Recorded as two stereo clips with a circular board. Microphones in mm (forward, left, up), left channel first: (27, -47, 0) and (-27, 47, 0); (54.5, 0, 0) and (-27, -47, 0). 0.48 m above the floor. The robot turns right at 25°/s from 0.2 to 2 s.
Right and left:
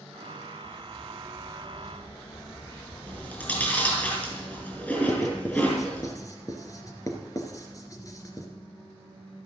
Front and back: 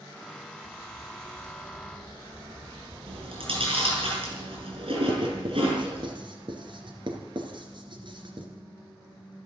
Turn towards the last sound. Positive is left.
turn(degrees=-120)